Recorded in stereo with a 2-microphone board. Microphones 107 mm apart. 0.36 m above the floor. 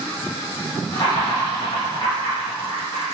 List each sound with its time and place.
0.9 s laughter: 50° left (ahead or behind), 1.6 m